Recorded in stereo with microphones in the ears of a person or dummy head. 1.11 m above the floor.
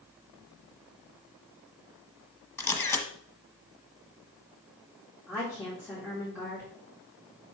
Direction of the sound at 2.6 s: 15° left (ahead or behind).